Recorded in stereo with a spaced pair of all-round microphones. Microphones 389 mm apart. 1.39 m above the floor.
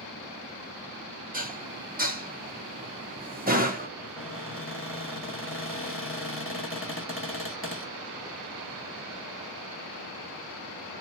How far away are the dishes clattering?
About 0.9 m.